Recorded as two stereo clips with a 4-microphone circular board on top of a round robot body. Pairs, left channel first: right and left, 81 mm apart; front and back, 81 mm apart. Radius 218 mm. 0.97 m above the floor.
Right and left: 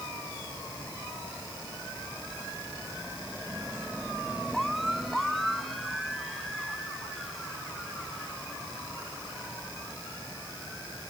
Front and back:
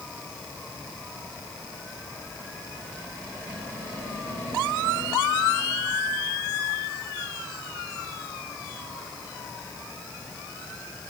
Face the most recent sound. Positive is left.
No sound to turn to.